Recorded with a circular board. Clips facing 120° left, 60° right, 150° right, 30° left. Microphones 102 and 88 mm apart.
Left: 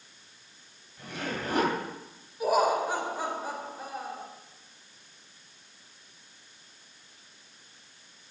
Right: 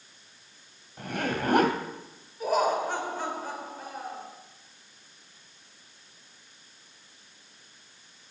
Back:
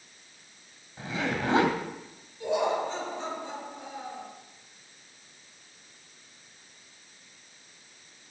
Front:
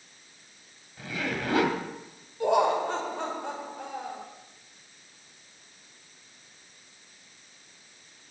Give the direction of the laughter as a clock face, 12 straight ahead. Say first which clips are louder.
Left 1 dB, front 4 dB; 11 o'clock.